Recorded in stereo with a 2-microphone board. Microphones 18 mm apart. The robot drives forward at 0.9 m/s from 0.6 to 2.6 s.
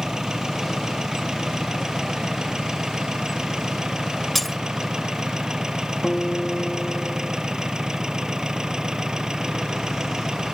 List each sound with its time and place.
0.0 s an engine running: 45° right (ahead or behind); by 10.6 s 50° right (ahead or behind)
4.3 s breaking glass: 5° left (ahead or behind)
6.0 s a guitar: 20° left (ahead or behind)